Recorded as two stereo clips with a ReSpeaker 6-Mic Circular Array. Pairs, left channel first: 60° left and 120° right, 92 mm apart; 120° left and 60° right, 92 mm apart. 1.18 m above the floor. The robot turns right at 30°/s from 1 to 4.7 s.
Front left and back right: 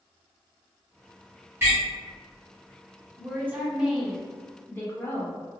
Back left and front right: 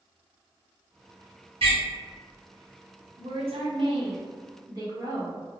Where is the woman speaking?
55° right, 0.9 m; by 5.6 s 10° right, 0.9 m.